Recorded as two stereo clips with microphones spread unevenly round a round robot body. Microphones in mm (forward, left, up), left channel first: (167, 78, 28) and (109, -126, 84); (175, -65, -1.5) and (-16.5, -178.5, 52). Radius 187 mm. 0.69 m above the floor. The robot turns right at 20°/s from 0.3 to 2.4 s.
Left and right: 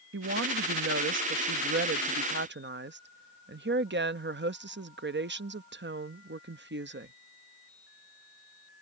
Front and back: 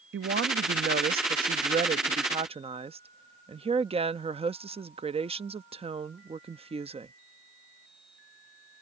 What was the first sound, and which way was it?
A woman speaking, 120° right.